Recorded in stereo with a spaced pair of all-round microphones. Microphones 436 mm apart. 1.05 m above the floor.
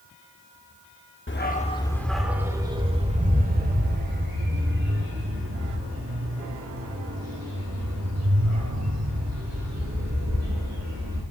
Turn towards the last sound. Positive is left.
turn(degrees=-40)  # may be behind; listen again after turning